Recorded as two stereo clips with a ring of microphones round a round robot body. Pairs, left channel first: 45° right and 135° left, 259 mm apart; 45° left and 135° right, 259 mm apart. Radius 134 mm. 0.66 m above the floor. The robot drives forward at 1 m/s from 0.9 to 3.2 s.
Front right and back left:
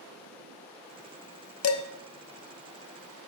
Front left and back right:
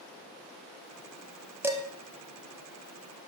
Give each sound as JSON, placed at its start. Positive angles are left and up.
{"t": 1.6, "sound": "dishes clattering", "azimuth_deg": -55, "distance_m": 0.7}